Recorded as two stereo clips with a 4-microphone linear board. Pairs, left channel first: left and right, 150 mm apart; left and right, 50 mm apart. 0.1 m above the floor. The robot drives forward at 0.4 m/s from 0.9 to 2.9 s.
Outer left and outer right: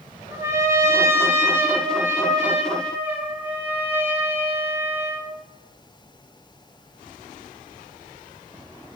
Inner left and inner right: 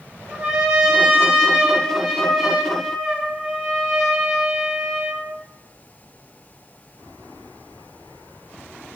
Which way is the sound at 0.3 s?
20° right (ahead or behind).